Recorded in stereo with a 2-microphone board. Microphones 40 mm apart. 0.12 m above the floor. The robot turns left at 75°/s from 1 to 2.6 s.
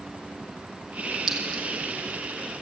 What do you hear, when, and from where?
1.3 s a clink: 5° right (ahead or behind), 1.7 m; by 1.6 s 20° left (ahead or behind), 1.7 m